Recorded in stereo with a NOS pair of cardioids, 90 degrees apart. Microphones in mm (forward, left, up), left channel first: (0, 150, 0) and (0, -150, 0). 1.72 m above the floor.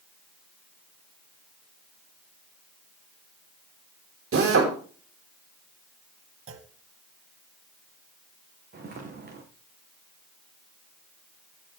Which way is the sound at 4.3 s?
45° right.